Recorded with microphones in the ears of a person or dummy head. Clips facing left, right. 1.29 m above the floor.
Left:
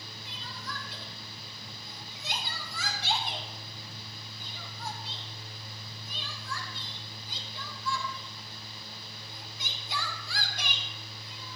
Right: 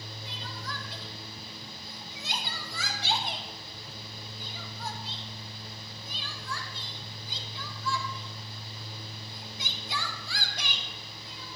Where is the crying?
60° right (ahead or behind), 1.4 m.